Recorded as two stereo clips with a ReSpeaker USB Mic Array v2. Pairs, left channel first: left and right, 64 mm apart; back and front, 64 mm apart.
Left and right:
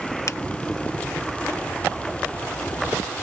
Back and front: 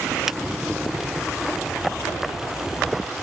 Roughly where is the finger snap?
Left.